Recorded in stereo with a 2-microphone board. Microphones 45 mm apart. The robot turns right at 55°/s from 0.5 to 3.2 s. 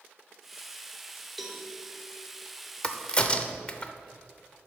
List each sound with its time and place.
1.4 s a cowbell: 5° right (ahead or behind), 1.1 m; by 1.6 s 10° right (ahead or behind), 1.1 m
2.8 s a crack: 20° left (ahead or behind), 0.7 m